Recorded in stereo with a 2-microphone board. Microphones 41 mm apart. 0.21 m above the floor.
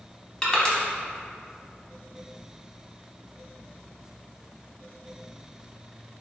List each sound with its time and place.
0.4 s crushing: 20° left (ahead or behind), 0.6 m